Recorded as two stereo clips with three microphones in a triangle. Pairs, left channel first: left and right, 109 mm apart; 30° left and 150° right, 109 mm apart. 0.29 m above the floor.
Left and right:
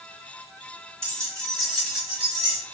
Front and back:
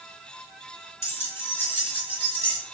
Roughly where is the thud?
No thud in this recording.